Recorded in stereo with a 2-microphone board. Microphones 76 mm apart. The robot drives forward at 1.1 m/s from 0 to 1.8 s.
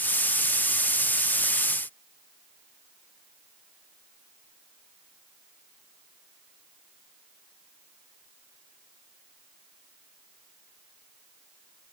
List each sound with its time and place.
Only background noise.